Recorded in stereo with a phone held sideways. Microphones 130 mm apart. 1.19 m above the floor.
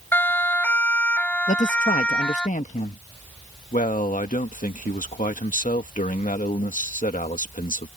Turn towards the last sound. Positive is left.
turn(degrees=85)